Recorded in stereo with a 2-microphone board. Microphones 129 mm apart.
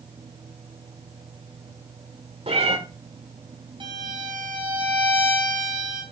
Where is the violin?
45° right (ahead or behind), 4.5 m.